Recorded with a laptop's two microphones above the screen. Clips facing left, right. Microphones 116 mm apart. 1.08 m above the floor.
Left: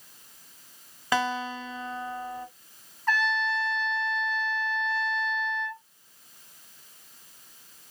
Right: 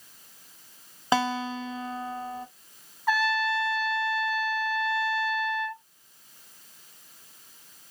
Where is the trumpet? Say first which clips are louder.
Right 2 dB; 10° right (ahead or behind), 0.7 m.